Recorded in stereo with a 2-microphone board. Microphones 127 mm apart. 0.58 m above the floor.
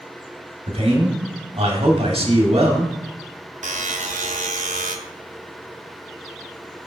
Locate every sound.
0.7 s a man speaking: 50° right (ahead or behind), 1.5 m
3.6 s a buzzer: 85° right, 0.7 m